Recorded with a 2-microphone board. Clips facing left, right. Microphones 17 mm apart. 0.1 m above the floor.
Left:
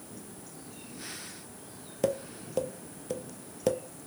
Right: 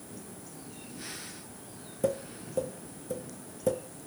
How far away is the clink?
I don't hear a clink.